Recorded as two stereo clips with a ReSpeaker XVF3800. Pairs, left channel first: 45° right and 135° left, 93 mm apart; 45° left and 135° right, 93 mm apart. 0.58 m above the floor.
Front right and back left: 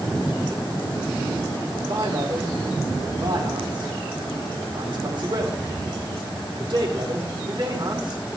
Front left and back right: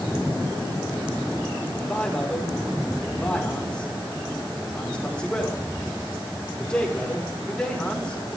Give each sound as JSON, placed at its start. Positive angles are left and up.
{"t": 1.8, "sound": "a man speaking", "azimuth_deg": 125, "distance_m": 2.0}